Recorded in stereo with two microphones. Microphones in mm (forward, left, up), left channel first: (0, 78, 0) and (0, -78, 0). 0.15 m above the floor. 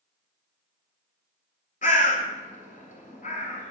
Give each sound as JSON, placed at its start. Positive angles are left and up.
{"t": 1.8, "sound": "a bird", "side_deg": 60, "distance_m": 0.9}